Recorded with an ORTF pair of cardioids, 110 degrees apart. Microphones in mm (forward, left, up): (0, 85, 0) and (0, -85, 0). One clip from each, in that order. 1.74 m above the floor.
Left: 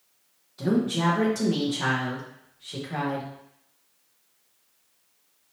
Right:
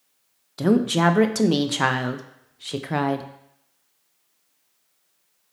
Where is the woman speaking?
60° right, 0.6 m.